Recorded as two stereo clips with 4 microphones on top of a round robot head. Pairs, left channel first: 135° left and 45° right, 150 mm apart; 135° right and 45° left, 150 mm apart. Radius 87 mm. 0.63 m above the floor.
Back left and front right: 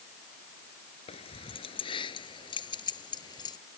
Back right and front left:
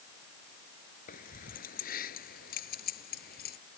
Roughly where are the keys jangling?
Behind.